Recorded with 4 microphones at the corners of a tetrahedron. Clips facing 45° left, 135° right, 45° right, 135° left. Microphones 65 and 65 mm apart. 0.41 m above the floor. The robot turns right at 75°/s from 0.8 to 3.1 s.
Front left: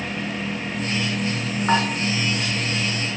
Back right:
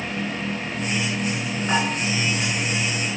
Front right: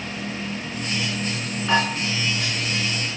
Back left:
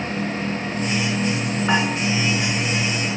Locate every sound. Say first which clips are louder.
1.7 s dishes clattering: front left 3 dB, even; 70° left, 3 m; by 1.9 s 85° left, 3 m